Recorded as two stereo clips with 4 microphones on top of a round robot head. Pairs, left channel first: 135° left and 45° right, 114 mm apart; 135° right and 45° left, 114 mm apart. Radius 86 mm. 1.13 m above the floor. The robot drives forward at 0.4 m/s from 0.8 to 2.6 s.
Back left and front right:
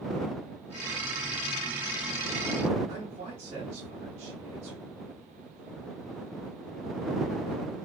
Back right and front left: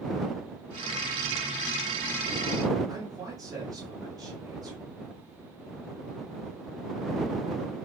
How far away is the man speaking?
About 2 m.